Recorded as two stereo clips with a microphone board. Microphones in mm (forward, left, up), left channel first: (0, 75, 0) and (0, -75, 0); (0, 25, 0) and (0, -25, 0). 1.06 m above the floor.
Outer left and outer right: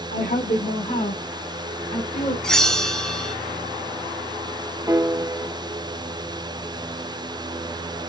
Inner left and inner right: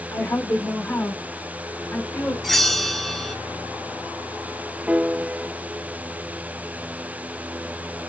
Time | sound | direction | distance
0.1 | a woman speaking | 60° left (ahead or behind) | 2 m
2.4 | a bell | 5° left (ahead or behind) | 0.6 m
4.9 | a piano | 20° right (ahead or behind) | 0.5 m